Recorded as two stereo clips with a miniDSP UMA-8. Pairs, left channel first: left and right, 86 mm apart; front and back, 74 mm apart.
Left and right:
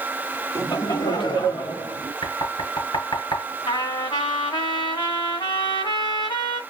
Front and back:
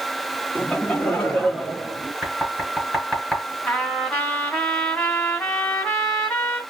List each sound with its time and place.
0.6 s laughter: 55° left, 1.1 m; by 2.1 s 90° left, 3 m
2.2 s knocking: 95° left, 3.5 m
3.7 s a trumpet: 80° left, 2.5 m